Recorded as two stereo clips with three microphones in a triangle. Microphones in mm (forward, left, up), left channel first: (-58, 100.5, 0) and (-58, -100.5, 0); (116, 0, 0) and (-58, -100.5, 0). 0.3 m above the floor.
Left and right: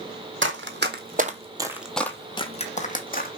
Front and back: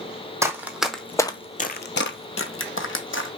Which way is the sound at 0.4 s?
70° right.